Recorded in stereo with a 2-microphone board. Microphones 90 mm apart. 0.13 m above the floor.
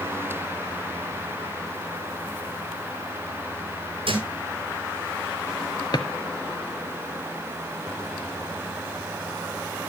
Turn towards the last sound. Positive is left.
turn(degrees=50)  # may be behind; listen again after turning